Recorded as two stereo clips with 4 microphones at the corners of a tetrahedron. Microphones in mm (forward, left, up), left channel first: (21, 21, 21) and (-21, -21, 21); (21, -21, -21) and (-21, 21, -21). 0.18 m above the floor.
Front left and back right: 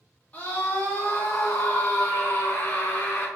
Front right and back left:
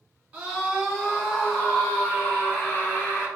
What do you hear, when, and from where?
0.3 s a scream: 75° left, 1.8 m; by 3.3 s 5° right, 3 m